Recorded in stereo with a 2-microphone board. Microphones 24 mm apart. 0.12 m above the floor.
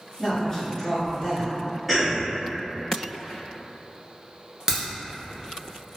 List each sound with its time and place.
0.2 s a woman speaking: 15° left (ahead or behind), 1.5 m
1.9 s a cough: 5° left (ahead or behind), 1.2 m
4.7 s a crack: 30° right (ahead or behind), 0.9 m